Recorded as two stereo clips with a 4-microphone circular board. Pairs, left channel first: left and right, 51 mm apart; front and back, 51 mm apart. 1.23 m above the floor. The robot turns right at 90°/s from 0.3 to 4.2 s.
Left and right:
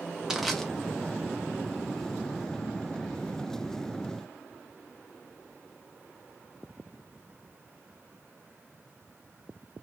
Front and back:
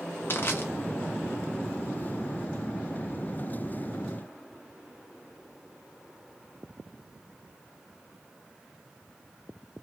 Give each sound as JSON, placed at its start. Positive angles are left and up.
{"t": 0.3, "sound": "crushing", "azimuth_deg": -15, "distance_m": 0.6}